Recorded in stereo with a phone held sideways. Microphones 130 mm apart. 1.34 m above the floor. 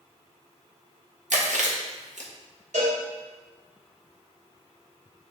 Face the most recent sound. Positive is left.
turn(degrees=-80)